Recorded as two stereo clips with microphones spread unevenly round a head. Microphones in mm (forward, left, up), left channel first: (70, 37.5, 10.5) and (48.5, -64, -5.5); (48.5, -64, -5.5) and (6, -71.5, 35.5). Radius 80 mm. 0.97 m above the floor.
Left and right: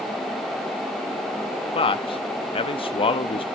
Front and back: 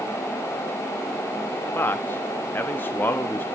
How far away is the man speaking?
About 1.0 m.